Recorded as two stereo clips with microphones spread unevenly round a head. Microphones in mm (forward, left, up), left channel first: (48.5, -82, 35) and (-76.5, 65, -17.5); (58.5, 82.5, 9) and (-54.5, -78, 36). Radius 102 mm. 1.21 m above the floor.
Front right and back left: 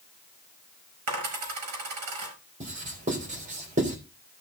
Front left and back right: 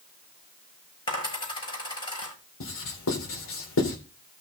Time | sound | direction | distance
1.1 | a dropped coin | 125° left | 5.5 m
2.6 | writing | 75° left | 3.5 m